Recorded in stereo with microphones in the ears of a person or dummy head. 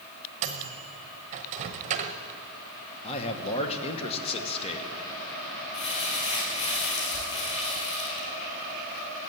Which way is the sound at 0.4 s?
40° right (ahead or behind).